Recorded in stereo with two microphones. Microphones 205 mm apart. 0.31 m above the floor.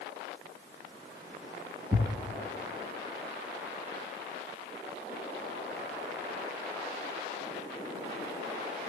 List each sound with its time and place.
1.9 s a thud: 10° right (ahead or behind), 2 m